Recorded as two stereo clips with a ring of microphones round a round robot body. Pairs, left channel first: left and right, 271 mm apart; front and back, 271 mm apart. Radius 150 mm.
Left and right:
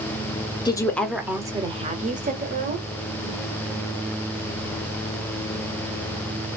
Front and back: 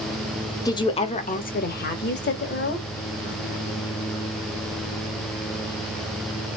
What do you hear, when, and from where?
0.7 s a woman speaking: 50° left, 0.8 m; by 2.8 s 40° right, 1.5 m